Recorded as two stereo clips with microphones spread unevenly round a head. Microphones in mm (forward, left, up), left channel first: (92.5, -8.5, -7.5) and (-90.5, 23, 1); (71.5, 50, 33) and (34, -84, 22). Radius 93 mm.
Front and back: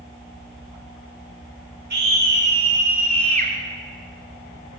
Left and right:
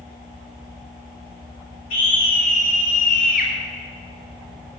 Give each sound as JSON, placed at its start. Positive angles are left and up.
{"t": 1.9, "sound": "a scream", "azimuth_deg": 135, "distance_m": 4.0}